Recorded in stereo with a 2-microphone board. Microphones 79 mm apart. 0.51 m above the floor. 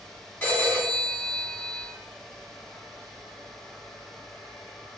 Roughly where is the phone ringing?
Centre.